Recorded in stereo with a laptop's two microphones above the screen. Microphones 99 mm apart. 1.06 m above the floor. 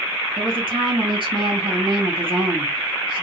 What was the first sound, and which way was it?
A woman speaking, 60° right (ahead or behind).